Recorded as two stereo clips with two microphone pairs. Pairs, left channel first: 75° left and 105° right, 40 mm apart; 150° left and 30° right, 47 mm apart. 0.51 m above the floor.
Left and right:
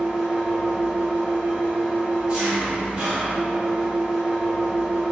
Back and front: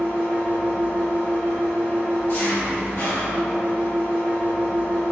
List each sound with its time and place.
0.0 s an engine running: 170° right, 1.0 m